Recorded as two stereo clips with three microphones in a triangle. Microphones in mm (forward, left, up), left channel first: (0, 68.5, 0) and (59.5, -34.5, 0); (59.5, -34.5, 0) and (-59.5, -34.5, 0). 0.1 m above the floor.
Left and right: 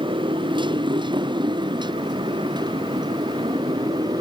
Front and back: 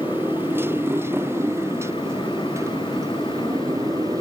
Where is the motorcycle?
105° right; by 4.2 s 115° right.